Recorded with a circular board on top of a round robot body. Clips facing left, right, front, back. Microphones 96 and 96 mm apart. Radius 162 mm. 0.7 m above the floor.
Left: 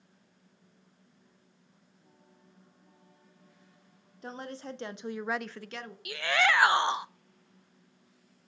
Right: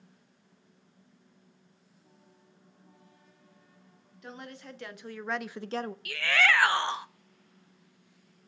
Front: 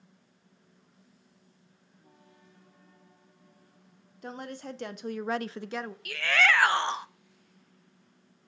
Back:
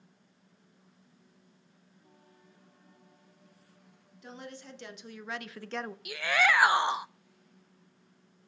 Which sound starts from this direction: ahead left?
A woman speaking, at 4.2 s.